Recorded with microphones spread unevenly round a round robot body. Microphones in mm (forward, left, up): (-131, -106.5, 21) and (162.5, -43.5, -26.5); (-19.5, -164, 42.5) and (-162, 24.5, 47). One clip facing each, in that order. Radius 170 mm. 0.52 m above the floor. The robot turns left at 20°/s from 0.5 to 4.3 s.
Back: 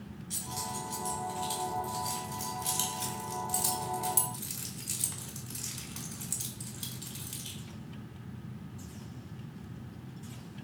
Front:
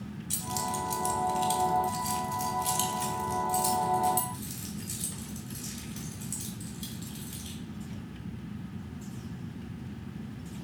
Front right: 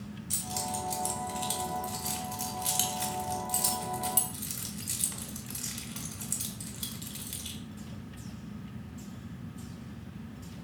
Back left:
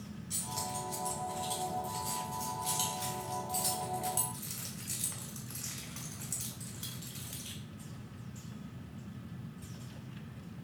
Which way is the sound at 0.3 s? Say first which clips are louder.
Front 6 dB, front right 6 dB; 20° right.